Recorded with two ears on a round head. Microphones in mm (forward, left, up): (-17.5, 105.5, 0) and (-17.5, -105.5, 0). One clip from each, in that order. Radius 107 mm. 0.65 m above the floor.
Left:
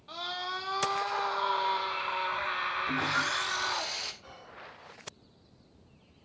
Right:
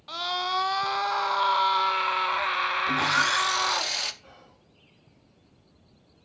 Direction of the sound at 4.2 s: 30° left (ahead or behind).